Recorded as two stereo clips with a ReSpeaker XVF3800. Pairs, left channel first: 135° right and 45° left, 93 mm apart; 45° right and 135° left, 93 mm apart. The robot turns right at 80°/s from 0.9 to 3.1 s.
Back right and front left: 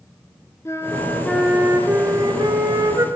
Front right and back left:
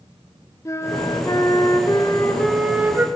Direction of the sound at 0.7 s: 90° right.